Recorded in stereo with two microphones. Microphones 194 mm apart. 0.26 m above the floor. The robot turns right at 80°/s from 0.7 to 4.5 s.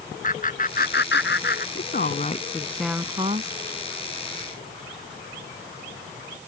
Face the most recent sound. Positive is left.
turn(degrees=-45)